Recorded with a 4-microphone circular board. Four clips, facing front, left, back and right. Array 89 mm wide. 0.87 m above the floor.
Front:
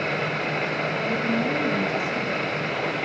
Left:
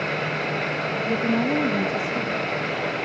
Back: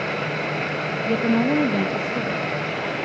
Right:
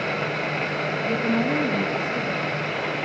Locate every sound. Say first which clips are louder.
1.1 s a woman speaking: left 1 dB, back 7 dB; 165° left, 1.0 m